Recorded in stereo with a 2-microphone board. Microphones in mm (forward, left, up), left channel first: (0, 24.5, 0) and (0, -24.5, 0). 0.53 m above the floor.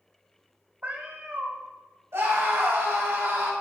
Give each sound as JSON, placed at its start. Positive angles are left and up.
{"t": 0.8, "sound": "a cat meowing", "side_deg": -35, "distance_m": 1.3}
{"t": 2.1, "sound": "a scream", "side_deg": -70, "distance_m": 3.5}